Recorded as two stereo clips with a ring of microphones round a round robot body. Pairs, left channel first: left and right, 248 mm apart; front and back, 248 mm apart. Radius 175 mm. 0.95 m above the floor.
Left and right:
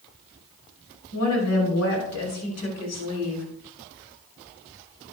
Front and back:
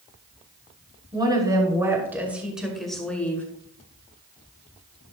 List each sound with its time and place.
1.1 s a woman speaking: 110° left, 6 m; by 3.5 s 80° left, 5 m